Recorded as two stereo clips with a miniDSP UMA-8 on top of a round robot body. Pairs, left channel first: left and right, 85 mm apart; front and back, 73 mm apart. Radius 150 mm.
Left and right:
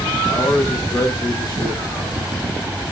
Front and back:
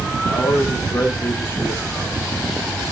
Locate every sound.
0.2 s a man speaking: 40° left, 2.5 m; by 2.2 s 65° left, 2.5 m